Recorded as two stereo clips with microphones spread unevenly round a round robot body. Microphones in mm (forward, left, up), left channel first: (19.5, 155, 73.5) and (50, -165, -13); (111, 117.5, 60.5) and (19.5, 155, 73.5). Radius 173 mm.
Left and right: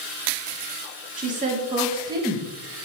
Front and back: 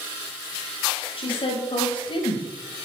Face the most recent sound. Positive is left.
turn(degrees=-5)